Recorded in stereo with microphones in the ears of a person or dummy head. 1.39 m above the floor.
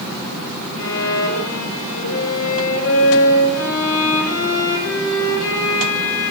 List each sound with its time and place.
0.8 s a violin: 80° left, 6 m